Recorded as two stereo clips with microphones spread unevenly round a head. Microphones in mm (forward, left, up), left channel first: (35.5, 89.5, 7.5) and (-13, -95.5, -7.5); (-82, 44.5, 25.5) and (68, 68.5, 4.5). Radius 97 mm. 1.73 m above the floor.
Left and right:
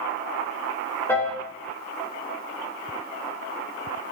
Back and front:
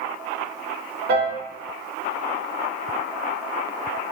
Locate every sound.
1.1 s a piano: straight ahead, 0.6 m